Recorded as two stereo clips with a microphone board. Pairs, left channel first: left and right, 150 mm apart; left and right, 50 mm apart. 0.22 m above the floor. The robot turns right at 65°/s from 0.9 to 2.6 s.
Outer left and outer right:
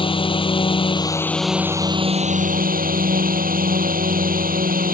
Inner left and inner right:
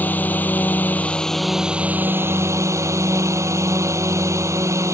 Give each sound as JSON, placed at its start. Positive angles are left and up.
{"t": 0.0, "sound": "a drone", "azimuth_deg": 145}